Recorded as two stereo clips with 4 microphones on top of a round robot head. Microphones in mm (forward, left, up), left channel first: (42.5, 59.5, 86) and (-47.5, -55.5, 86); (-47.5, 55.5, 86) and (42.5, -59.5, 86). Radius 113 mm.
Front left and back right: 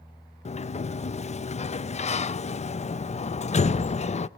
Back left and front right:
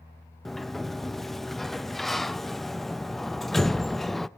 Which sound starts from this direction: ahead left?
A sliding door, at 0.5 s.